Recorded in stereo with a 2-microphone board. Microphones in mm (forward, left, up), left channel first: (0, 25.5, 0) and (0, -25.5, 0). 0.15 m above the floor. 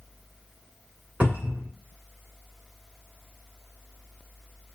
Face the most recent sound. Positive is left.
turn(degrees=-35)  # may be behind; listen again after turning